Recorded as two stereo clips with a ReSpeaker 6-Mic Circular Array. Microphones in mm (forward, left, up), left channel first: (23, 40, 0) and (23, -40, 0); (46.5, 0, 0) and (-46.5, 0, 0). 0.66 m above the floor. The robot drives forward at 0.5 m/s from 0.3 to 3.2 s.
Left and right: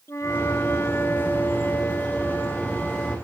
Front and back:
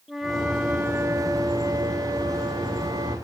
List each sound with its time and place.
0.1 s a flute: 90° left, 0.7 m; by 3.2 s 165° left, 1.6 m